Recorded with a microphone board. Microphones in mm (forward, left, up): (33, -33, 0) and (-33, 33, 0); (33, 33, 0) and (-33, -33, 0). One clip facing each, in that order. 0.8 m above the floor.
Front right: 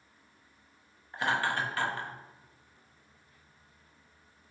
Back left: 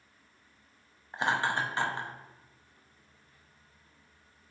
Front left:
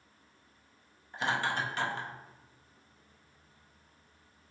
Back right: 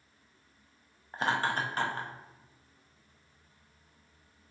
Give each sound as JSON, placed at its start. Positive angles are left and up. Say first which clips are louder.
{"t": 1.1, "sound": "laughter", "louder": "back left 1 dB, back right 2 dB", "azimuth_deg": -165, "distance_m": 0.5}